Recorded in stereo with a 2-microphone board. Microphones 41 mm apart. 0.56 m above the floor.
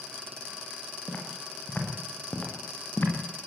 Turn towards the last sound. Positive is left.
turn(degrees=45)  # may be behind; listen again after turning